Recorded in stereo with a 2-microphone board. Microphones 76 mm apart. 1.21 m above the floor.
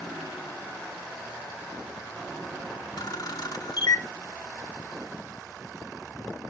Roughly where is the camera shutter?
Left.